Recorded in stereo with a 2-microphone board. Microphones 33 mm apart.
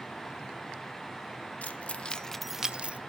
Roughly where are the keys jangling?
Left.